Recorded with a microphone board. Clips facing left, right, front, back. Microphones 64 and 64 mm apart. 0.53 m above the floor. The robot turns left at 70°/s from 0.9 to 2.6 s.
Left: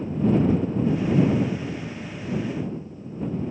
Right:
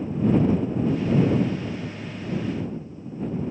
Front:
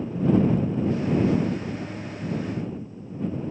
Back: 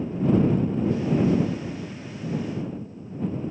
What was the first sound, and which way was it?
Only background noise.